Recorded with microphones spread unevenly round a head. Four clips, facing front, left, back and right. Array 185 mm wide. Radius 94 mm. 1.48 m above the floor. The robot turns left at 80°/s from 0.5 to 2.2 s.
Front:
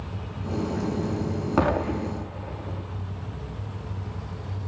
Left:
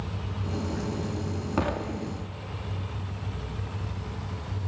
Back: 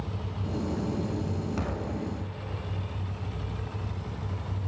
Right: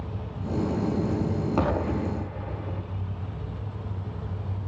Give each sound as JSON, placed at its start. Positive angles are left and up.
{"t": 1.6, "sound": "an explosion", "azimuth_deg": 0, "distance_m": 3.5}